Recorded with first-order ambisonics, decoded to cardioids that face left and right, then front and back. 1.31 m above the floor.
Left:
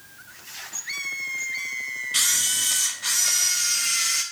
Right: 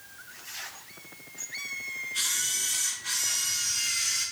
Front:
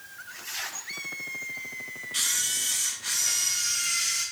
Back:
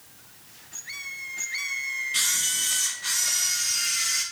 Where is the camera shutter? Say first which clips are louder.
Left 7 dB, even; 100° left, 3 m.